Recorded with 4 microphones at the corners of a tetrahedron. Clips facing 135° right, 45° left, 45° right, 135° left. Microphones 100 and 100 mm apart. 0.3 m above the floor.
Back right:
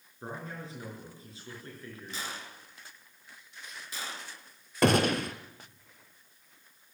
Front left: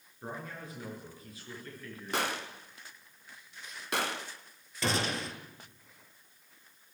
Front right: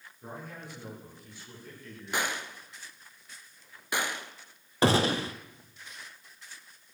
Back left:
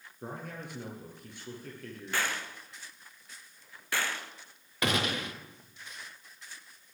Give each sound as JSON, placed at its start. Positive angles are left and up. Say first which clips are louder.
{"t": 0.2, "sound": "a man speaking", "louder": "back right 1 dB, back left 2 dB", "azimuth_deg": 165, "distance_m": 6.0}
{"t": 2.1, "sound": "a gunshot", "louder": "front left 10 dB, front right 1 dB", "azimuth_deg": 25, "distance_m": 0.9}
{"t": 4.8, "sound": "a gunshot", "louder": "back right 8 dB, front right 6 dB", "azimuth_deg": -100, "distance_m": 1.2}